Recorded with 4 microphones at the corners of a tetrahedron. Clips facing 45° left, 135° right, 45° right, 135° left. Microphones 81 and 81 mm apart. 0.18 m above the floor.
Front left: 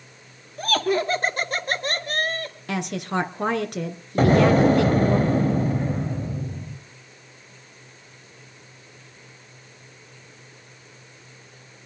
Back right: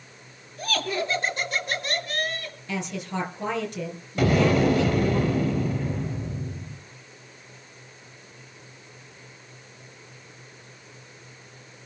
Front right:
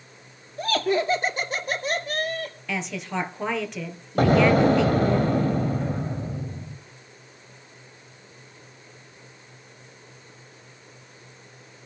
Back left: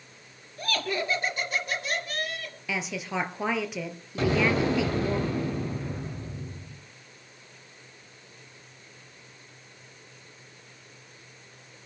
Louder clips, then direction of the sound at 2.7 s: Front left 4 dB, even; 50° left.